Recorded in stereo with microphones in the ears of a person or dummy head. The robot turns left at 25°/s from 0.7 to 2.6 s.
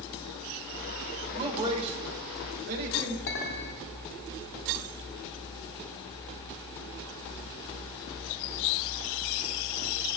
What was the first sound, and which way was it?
A man speaking, 25° right (ahead or behind).